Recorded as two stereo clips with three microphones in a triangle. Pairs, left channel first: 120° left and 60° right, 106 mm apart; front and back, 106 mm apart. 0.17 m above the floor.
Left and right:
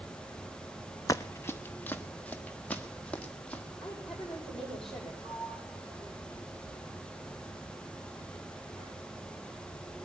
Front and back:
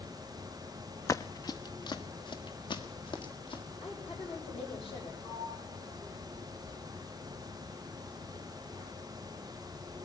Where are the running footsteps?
60° left, 0.5 m; by 3.6 s 40° left, 2.5 m.